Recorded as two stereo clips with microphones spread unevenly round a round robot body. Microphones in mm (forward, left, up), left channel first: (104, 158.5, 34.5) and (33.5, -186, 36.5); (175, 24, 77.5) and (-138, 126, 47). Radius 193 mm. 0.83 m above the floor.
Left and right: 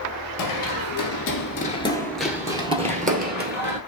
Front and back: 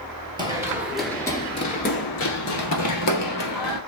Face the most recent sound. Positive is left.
turn(degrees=-45)